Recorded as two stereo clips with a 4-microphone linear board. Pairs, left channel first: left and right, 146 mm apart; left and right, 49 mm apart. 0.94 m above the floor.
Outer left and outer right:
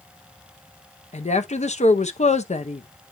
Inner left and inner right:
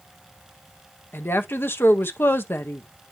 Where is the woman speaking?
50° left (ahead or behind), 0.7 m.